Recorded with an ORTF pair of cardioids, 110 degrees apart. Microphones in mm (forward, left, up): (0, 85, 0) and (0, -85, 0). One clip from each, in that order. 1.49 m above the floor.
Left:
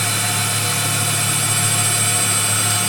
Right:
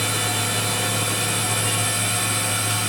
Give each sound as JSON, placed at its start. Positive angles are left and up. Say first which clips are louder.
{"t": 0.0, "sound": "a machine running", "louder": "left 3 dB", "azimuth_deg": 35, "distance_m": 1.3}